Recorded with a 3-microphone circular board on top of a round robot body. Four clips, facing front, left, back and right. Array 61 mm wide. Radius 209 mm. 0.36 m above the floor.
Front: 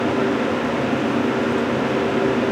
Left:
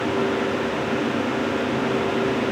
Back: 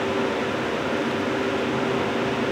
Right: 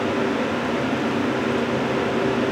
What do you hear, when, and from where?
Only background noise.